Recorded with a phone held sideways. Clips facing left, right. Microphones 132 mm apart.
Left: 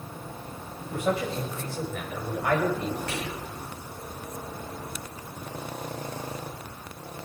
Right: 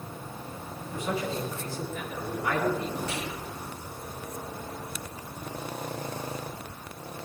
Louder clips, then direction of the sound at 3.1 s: Left 1 dB; 65° left (ahead or behind).